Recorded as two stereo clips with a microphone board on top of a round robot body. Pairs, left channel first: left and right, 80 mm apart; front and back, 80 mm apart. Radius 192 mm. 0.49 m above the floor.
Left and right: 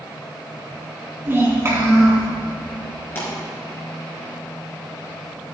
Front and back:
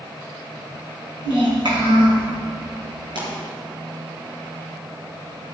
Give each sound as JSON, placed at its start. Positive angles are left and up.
{"t": 1.2, "sound": "a child speaking", "azimuth_deg": -155, "distance_m": 4.0}
{"t": 3.1, "sound": "a pop", "azimuth_deg": 155, "distance_m": 4.5}